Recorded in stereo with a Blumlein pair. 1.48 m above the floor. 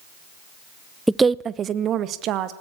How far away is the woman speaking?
About 0.6 m.